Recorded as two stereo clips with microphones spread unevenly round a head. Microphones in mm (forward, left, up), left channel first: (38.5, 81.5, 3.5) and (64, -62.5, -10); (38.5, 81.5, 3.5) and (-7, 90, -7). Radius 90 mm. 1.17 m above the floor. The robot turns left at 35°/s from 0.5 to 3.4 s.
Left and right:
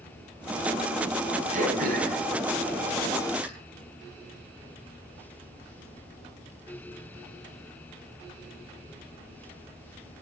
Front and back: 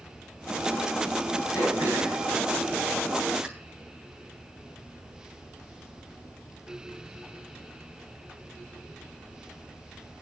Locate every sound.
1.5 s throat clearing: 45° right, 5.5 m; by 3.5 s 110° right, 5.5 m